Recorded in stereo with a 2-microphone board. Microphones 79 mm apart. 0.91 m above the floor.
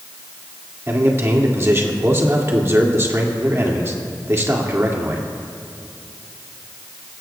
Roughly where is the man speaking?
Right.